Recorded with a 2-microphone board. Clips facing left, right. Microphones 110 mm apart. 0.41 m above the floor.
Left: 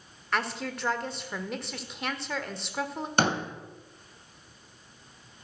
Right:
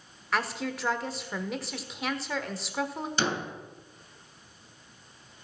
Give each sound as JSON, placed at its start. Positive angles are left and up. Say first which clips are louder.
{"t": 0.3, "sound": "a woman speaking", "louder": "right 1 dB", "side_deg": 0, "distance_m": 1.3}
{"t": 3.2, "sound": "a door slam", "louder": "left 4 dB", "side_deg": 55, "distance_m": 2.0}